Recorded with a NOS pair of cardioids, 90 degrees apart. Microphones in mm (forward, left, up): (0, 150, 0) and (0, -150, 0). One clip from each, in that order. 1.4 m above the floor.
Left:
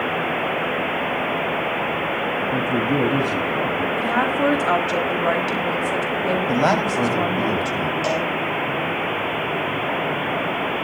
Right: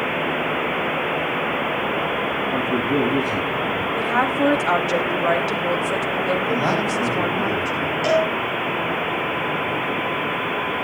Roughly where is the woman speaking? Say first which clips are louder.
Right 2 dB; ahead.